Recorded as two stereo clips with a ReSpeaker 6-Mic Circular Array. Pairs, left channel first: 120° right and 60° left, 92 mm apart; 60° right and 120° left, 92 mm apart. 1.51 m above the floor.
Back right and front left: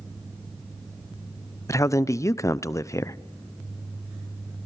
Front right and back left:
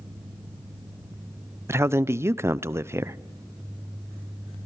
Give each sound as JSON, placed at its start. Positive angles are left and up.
{"t": 1.7, "sound": "a man speaking", "azimuth_deg": 180, "distance_m": 0.5}